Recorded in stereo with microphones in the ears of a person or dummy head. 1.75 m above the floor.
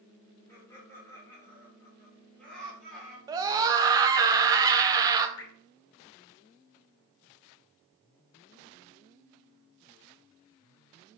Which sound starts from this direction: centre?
Laughter, at 0.5 s.